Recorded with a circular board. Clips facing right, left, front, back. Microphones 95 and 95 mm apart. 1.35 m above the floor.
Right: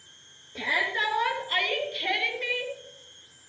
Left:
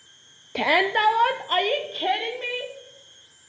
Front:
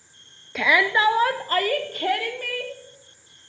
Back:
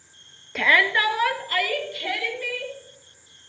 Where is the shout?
90° left, 0.5 m; by 2.7 s 35° left, 1.9 m.